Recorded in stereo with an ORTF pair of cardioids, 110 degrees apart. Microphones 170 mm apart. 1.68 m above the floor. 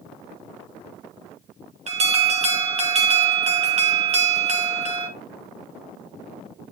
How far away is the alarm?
About 2.5 m.